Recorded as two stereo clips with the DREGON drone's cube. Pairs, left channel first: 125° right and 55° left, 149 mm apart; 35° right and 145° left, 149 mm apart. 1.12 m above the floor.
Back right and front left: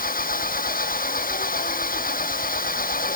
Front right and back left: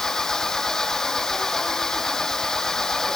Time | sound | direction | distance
0.0 | an engine running | 120° right | ?